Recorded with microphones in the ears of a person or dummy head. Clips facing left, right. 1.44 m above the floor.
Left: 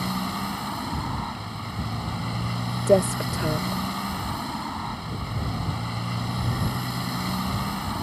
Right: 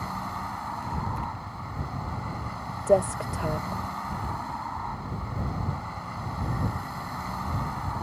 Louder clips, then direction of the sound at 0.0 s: Left 6 dB; 50° left (ahead or behind).